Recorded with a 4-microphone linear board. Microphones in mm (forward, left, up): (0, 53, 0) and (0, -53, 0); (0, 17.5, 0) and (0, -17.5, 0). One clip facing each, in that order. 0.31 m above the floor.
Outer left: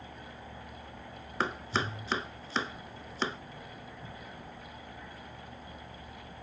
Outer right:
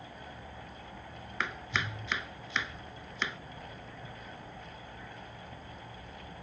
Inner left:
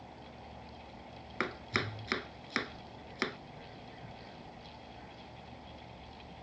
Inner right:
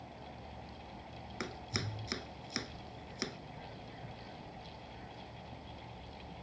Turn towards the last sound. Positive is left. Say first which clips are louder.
# outer left 4 dB, inner left 7 dB
turn(degrees=35)  # may be behind; listen again after turning